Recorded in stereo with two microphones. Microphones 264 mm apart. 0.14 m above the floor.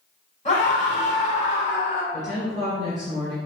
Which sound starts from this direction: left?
A scream, at 0.5 s.